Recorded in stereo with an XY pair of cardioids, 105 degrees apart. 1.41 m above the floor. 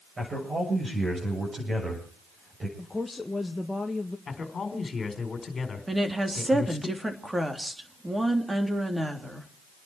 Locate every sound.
0.2 s a man speaking: 25° right, 7.5 m
2.8 s a woman speaking: 15° left, 1.4 m
4.3 s a man speaking: 40° left, 4.5 m
5.9 s a woman speaking: 15° right, 3 m